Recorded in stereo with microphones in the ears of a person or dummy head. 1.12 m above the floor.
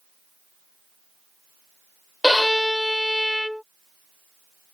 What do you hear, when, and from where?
2.2 s a violin: centre (ahead or behind)